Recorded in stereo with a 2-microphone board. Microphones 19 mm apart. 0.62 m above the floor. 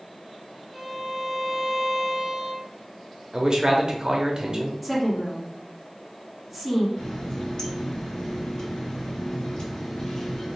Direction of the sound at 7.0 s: 55° left (ahead or behind).